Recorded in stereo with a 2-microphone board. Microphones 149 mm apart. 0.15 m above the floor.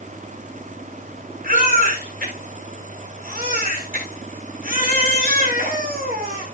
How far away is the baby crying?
About 9 m.